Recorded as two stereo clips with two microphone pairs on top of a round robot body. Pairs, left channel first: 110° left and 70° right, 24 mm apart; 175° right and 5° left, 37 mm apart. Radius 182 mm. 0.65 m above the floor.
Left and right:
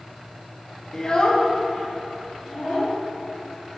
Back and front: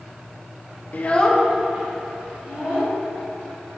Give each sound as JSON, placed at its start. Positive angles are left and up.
{"t": 0.9, "sound": "a child speaking", "azimuth_deg": 180, "distance_m": 0.6}